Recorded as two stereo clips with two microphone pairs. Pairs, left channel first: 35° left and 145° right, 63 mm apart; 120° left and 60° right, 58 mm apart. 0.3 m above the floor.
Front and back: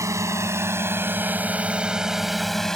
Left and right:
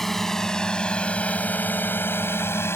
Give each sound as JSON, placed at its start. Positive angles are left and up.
{"t": 0.0, "sound": "a drone", "azimuth_deg": -155}